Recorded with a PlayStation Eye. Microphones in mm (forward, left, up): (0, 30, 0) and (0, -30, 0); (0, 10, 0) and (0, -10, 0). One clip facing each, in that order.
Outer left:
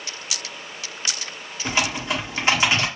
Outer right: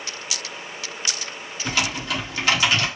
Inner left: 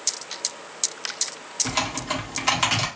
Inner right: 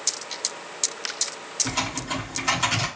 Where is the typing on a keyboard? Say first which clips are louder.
Outer left 1 dB, inner left 3 dB; 25° left (ahead or behind), 1.7 m.